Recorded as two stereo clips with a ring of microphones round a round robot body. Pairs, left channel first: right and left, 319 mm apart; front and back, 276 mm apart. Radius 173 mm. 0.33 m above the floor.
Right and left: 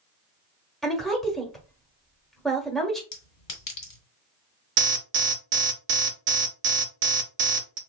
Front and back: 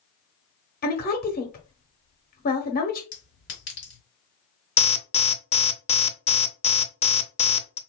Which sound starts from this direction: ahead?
A woman speaking, at 0.8 s.